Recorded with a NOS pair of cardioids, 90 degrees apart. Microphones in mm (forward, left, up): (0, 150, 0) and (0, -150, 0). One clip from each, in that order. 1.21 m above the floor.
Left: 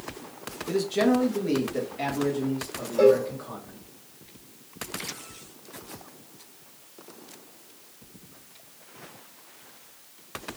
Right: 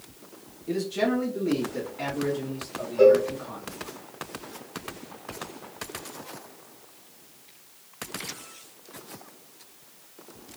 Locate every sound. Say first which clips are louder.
0.7 s a man speaking: left 2 dB; 25° left, 1.0 m; by 3.8 s straight ahead, 2.5 m
3.0 s a cowbell: right 2 dB; 45° left, 2.5 m